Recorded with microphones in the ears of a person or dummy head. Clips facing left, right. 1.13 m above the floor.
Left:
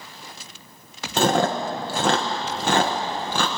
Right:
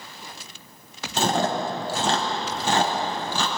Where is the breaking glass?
I don't hear breaking glass.